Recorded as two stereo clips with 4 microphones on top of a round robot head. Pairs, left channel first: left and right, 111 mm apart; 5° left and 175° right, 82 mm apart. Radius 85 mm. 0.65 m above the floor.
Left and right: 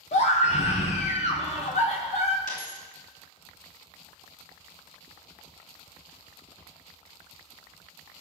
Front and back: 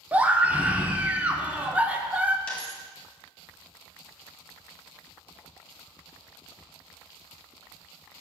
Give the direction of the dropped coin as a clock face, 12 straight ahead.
9 o'clock.